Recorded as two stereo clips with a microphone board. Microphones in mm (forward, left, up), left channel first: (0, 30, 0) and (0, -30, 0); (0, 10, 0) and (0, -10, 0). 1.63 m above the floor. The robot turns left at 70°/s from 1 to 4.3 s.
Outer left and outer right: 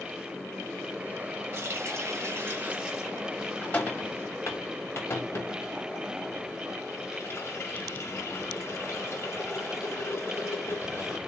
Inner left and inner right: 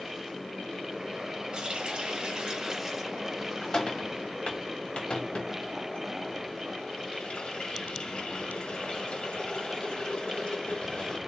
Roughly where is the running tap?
Right.